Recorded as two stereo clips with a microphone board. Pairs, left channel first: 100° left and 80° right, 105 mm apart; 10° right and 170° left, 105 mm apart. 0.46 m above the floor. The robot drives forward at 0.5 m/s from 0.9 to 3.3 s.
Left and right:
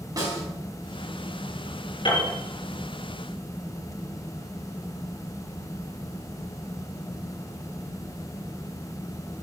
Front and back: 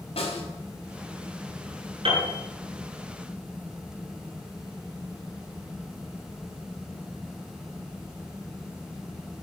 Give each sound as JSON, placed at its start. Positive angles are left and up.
{"t": 0.2, "sound": "a snare drum", "azimuth_deg": -25, "distance_m": 4.5}
{"t": 2.0, "sound": "a piano", "azimuth_deg": 140, "distance_m": 6.5}